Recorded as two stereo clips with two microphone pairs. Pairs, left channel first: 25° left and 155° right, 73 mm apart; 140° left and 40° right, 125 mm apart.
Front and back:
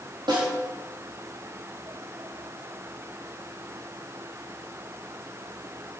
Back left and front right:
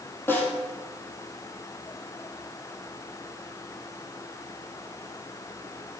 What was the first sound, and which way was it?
A snare drum, 150° right.